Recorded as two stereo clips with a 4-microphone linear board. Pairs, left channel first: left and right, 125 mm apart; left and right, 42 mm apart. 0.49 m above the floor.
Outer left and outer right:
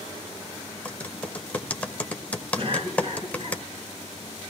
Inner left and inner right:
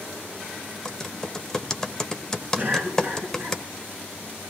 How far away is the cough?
About 6.5 m.